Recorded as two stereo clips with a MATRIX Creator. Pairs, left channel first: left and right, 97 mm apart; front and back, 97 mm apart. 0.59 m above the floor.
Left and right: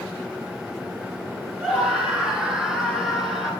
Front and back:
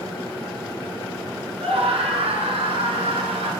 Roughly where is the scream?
Behind.